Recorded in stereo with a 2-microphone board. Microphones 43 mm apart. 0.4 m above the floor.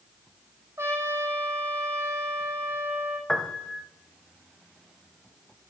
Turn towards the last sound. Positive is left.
turn(degrees=10)  # may be behind; listen again after turning